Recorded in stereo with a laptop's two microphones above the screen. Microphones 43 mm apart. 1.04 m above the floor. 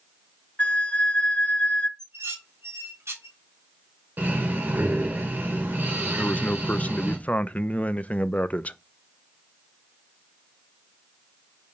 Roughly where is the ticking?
No ticking in this recording.